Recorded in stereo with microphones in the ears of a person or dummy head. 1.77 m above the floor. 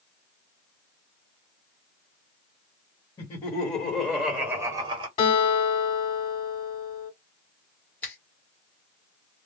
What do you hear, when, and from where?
3.2 s laughter: 35° left (ahead or behind), 1.7 m; by 5.1 s 35° right (ahead or behind), 1.0 m
5.2 s a guitar: 30° left (ahead or behind), 2 m
8.0 s a finger snap: 15° left (ahead or behind), 1.1 m